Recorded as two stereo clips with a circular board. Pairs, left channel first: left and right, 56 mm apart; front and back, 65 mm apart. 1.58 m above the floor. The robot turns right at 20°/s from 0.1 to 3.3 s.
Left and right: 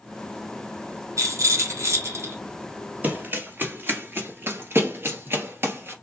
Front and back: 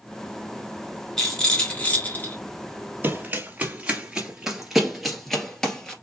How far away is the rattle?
About 2 m.